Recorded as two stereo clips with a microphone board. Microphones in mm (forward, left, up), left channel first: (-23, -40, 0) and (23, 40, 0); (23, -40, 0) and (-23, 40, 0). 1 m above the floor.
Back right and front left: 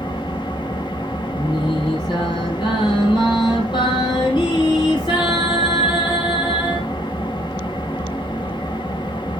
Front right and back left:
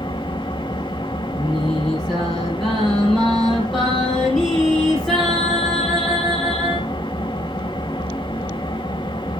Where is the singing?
150° right, 5 m.